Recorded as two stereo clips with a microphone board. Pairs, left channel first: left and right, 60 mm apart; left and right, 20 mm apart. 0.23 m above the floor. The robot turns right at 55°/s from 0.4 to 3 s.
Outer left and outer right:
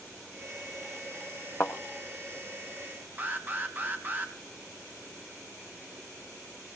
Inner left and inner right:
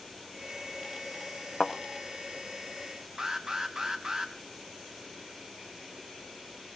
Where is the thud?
55° left (ahead or behind), 2.5 m; by 1.7 s 60° left (ahead or behind), 2.5 m.